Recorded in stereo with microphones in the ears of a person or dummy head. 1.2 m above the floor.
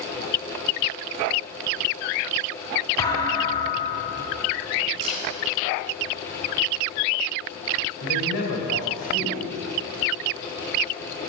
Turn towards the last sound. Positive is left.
turn(degrees=80)